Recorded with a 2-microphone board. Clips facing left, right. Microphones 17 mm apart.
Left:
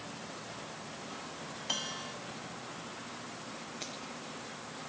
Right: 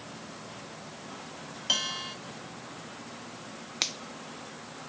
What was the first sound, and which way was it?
A bell, 35° right (ahead or behind).